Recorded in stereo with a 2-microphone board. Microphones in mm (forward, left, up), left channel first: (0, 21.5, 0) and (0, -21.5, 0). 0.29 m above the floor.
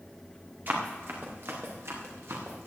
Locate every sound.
0.7 s running footsteps: 45° right (ahead or behind), 4 m; by 2.7 s 80° right, 4.5 m